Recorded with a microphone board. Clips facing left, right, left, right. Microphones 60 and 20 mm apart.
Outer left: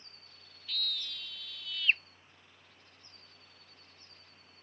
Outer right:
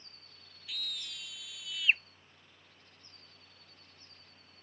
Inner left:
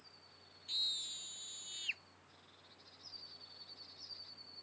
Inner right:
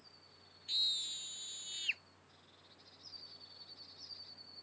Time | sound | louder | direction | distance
0.7 | a scream | outer left 3 dB, inner right 3 dB | 10° right (ahead or behind) | ?